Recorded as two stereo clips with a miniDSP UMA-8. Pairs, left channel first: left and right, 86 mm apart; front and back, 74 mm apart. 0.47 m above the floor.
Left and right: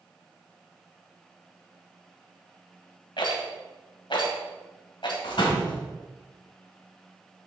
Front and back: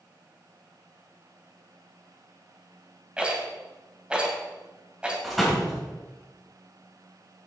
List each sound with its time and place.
3.2 s a rattle: 105° left, 1.9 m
5.2 s a door slam: 90° left, 2 m